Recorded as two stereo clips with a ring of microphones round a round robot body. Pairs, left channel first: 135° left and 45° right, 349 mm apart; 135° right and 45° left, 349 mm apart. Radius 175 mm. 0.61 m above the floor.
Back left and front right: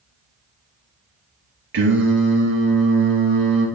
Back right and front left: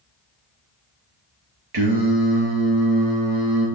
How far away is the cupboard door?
No cupboard door in this recording.